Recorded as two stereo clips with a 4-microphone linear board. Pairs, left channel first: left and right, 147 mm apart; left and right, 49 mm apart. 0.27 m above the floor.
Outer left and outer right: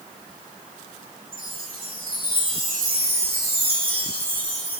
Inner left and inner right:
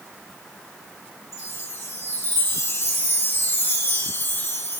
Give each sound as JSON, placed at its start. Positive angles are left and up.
{"t": 1.3, "sound": "a chime", "side_deg": 70, "distance_m": 2.5}